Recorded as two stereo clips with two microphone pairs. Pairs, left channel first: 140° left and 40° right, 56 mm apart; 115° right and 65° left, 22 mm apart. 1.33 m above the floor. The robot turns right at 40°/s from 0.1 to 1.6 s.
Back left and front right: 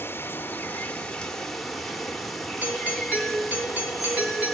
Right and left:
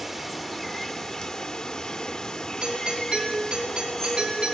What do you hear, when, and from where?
0.0 s running water: 165° left, 1.1 m; by 4.5 s 135° right, 1.1 m
2.6 s a doorbell: 20° left, 4.5 m